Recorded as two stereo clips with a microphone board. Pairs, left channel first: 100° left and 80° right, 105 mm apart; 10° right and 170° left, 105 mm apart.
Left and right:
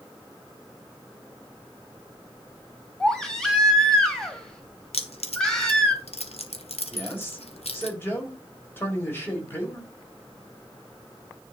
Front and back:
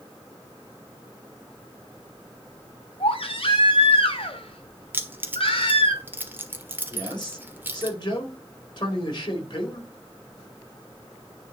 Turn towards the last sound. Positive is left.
turn(degrees=35)